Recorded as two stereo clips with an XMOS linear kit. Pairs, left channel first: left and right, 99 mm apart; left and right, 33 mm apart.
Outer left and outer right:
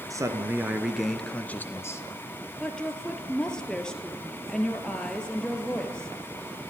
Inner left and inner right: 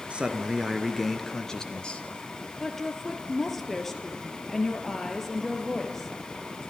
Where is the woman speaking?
10° left (ahead or behind), 2.5 m.